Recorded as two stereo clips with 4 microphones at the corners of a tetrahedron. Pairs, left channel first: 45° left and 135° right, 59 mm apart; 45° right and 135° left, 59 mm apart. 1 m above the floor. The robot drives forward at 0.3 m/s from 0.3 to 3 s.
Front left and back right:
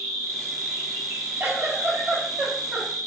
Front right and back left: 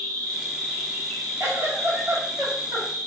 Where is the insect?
115° right, 0.9 m; by 3.1 s 150° right, 1.4 m.